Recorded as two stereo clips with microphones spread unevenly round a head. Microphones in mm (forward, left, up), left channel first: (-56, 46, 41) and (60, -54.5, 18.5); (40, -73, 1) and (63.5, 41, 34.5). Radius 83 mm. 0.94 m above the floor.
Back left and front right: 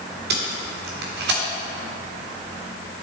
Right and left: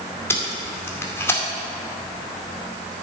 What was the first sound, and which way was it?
Tape being pulled, 30° right.